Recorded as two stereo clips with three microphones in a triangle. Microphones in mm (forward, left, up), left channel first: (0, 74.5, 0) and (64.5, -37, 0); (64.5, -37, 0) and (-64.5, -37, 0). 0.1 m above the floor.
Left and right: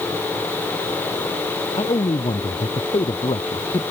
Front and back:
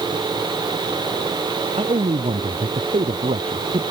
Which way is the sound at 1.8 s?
155° left.